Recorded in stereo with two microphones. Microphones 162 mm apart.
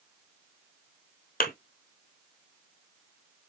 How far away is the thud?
About 1.1 m.